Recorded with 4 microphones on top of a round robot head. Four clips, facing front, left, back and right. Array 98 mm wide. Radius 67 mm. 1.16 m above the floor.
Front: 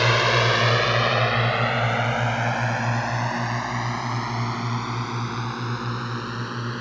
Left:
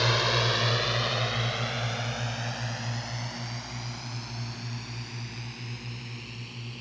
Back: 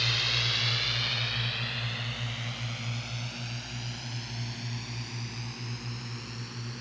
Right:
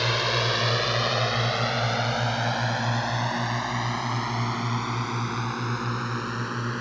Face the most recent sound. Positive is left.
turn(degrees=-50)